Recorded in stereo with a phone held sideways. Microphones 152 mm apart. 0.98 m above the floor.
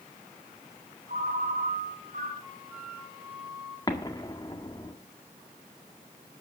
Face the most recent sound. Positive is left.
turn(degrees=25)  # may be behind; listen again after turning